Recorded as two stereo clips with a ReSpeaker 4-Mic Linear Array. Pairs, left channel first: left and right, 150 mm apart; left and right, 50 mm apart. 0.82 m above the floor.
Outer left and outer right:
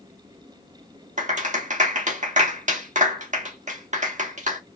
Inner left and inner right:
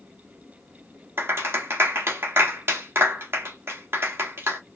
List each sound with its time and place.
1.2 s a clap: 50° right (ahead or behind), 1.5 m